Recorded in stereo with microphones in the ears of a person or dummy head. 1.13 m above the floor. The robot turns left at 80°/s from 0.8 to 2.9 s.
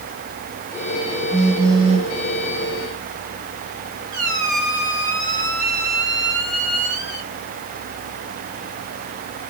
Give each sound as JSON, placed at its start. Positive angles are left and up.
{"t": 1.3, "sound": "a phone buzzing", "azimuth_deg": 10, "distance_m": 1.0}
{"t": 4.1, "sound": "a squeak", "side_deg": -80, "distance_m": 2.5}